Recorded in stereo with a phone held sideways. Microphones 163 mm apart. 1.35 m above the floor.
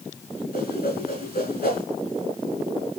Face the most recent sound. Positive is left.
turn(degrees=75)  # may be behind; listen again after turning